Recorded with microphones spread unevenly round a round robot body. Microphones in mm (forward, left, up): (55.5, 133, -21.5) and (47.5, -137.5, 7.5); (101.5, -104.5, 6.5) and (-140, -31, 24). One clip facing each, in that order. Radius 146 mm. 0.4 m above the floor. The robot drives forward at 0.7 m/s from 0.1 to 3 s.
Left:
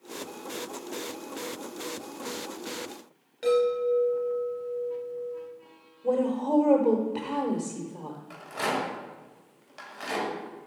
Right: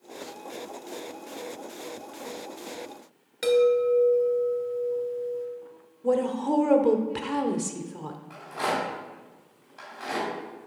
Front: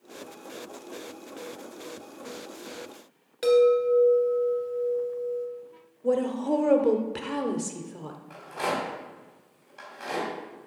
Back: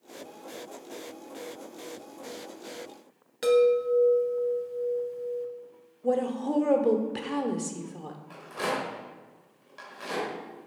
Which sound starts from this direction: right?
A woman speaking, at 6.0 s.